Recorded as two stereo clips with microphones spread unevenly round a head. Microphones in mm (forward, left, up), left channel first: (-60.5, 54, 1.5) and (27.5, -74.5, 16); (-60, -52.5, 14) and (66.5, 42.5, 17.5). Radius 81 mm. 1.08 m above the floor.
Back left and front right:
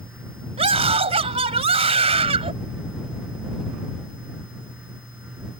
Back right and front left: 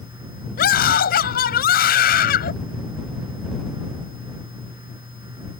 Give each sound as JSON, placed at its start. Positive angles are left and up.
{"t": 0.6, "sound": "a scream", "azimuth_deg": -110}